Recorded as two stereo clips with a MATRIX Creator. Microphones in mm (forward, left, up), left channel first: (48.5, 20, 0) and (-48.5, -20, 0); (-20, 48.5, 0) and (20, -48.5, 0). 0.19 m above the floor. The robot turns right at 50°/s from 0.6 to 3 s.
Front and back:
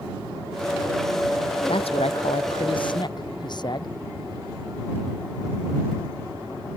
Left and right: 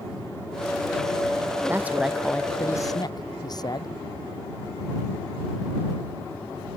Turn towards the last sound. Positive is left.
turn(degrees=65)